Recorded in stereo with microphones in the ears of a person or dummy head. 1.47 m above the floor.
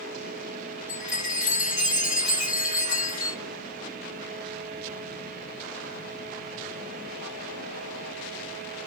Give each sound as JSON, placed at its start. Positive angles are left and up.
{"t": 0.9, "sound": "a chime", "side_deg": -5, "distance_m": 1.2}